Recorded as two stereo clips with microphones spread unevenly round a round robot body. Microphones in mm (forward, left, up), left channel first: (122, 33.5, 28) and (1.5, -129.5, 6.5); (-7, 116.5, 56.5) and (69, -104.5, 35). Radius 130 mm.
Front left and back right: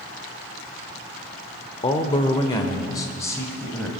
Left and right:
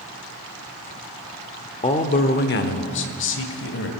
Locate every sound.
1.8 s a man speaking: 80° left, 0.9 m; by 3.9 s 140° left, 1.8 m